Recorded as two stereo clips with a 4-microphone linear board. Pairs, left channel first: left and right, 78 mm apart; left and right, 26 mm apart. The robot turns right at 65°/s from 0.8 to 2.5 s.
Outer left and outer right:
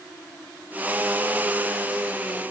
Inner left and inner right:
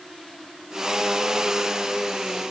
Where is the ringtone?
I don't hear a ringtone.